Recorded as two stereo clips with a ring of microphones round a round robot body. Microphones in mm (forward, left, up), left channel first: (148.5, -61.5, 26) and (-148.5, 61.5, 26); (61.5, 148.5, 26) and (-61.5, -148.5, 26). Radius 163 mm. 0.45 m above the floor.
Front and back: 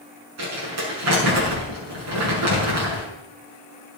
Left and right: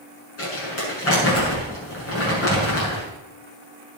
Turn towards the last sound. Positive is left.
turn(degrees=120)